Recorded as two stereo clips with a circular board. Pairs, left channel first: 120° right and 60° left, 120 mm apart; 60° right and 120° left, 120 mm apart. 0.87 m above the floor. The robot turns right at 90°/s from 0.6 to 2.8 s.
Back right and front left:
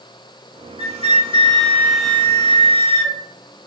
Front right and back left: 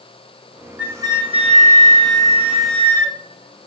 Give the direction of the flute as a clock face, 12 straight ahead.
11 o'clock.